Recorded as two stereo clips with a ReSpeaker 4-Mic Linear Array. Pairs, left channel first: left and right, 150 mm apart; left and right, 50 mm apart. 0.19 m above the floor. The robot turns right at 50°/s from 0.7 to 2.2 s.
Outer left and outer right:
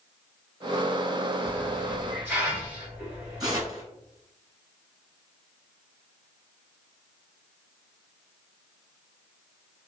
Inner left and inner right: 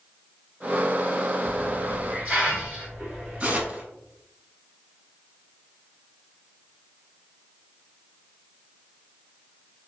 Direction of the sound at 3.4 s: 30° right (ahead or behind).